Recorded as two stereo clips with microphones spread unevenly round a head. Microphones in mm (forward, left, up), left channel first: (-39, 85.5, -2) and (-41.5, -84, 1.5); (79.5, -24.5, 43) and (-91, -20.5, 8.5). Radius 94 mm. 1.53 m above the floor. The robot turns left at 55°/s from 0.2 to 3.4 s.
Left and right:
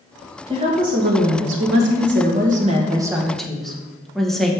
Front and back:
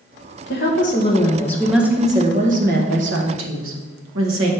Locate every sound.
0.5 s a woman speaking: 20° right, 1.5 m; by 4.5 s 175° left, 1.5 m